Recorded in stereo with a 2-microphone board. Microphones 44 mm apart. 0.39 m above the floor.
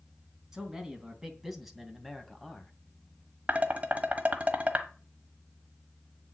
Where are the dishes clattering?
35° right (ahead or behind), 1.2 m.